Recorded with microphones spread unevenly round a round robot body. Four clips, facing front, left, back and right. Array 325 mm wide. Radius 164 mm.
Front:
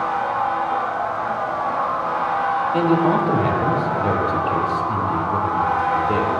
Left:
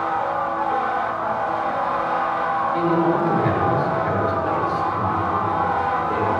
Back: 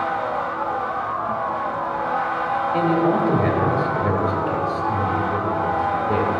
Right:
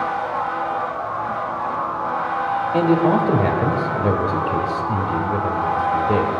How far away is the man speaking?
About 1.7 m.